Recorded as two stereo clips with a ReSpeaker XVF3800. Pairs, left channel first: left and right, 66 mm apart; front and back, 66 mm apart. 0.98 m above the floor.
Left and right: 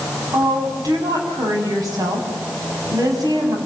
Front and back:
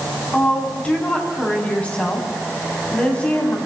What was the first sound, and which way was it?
A woman speaking, 70° right.